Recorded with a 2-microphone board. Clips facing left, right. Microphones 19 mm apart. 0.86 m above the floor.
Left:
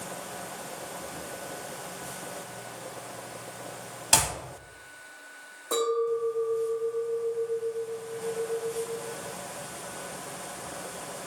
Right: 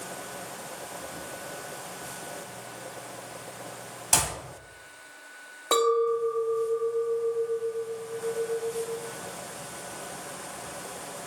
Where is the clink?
65° right (ahead or behind), 0.6 m.